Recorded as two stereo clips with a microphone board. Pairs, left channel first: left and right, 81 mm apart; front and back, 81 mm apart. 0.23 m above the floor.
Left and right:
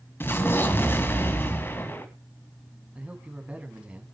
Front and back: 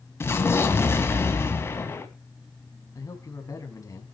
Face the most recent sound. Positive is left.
turn(degrees=-20)